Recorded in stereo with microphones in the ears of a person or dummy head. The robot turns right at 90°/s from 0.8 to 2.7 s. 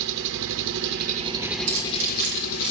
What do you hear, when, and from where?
0.0 s an engine running: 70° right, 1.0 m; by 2.7 s 100° left, 1.0 m
1.7 s keys jangling: 60° right (ahead or behind), 3.5 m; by 2.7 s 25° right (ahead or behind), 3.5 m